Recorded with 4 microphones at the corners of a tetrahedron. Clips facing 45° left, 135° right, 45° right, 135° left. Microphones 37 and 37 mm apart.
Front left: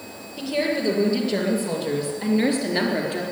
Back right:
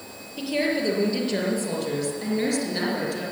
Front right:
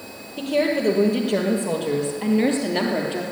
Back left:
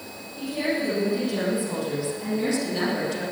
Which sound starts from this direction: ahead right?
A woman speaking, at 0.4 s.